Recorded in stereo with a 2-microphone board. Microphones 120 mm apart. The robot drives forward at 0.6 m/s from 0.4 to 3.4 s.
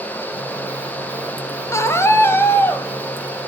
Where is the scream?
25° left (ahead or behind), 1.6 m; by 2.9 s 15° left (ahead or behind), 2 m.